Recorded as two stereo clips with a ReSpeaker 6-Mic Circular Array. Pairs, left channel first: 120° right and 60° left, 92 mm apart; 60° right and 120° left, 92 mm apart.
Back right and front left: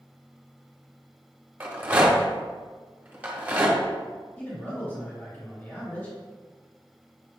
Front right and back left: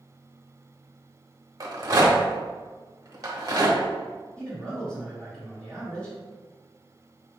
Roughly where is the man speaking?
Behind right.